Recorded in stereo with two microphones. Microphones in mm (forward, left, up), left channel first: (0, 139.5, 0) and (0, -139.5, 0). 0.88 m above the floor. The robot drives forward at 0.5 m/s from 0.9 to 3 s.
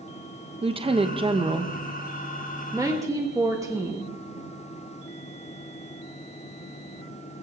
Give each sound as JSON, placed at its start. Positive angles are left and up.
{"t": 0.6, "sound": "a woman speaking", "side_deg": -20, "distance_m": 0.8}